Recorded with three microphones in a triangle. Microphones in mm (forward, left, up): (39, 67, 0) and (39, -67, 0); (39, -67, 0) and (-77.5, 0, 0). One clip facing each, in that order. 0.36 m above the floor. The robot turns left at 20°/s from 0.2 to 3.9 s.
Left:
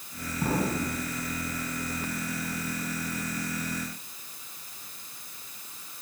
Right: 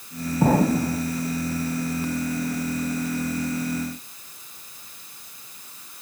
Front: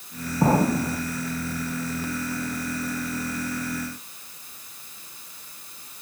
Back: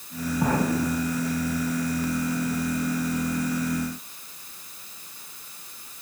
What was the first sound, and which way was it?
An explosion, 85° right.